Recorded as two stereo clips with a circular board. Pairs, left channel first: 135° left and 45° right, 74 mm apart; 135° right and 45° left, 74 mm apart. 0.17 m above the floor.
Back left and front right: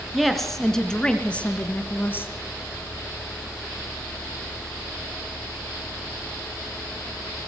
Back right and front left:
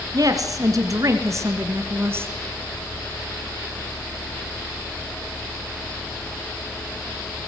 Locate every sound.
0.1 s a woman speaking: 45° left, 2 m; by 2.3 s 90° left, 1.8 m